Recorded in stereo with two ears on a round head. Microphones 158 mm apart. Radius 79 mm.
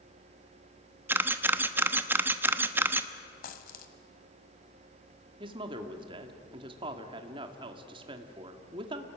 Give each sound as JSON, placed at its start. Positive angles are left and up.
{"t": 1.1, "sound": "a camera shutter", "side_deg": -10, "distance_m": 0.9}
{"t": 3.4, "sound": "a dropped coin", "side_deg": 50, "distance_m": 1.8}
{"t": 5.4, "sound": "a woman speaking", "side_deg": -30, "distance_m": 1.9}